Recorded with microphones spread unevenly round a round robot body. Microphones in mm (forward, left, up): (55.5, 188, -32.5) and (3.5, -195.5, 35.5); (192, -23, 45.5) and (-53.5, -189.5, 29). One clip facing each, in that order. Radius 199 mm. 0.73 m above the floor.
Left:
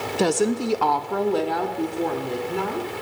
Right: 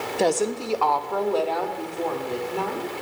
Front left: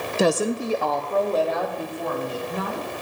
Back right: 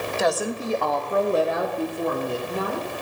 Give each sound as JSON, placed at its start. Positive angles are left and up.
{"t": 0.2, "sound": "a woman speaking", "azimuth_deg": 45, "distance_m": 0.5}